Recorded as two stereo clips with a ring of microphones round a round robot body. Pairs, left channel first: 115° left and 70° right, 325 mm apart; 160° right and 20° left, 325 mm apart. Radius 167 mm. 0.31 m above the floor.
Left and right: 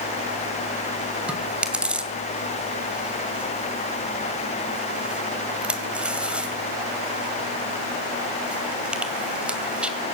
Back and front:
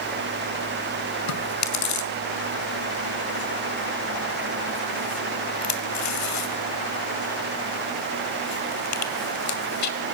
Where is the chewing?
155° right, 2.5 m.